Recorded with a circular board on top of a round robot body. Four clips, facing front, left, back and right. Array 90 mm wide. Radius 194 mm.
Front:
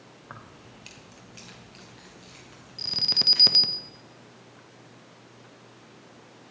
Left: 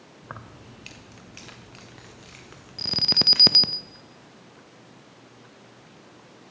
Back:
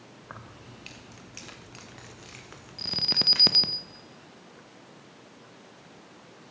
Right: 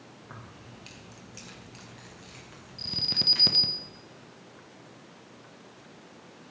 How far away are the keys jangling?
About 0.9 m.